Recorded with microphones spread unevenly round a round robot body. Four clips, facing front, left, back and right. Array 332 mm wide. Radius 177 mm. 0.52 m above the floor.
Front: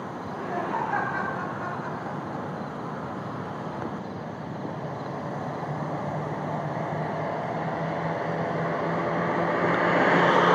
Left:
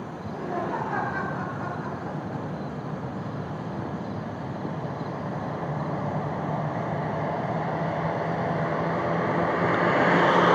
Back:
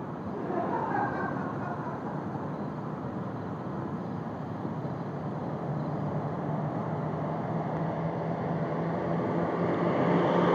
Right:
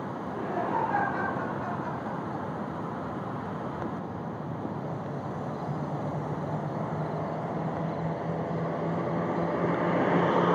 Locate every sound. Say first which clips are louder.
0.2 s laughter: left 2 dB, even; straight behind, 9 m; by 2.7 s 160° left, 8 m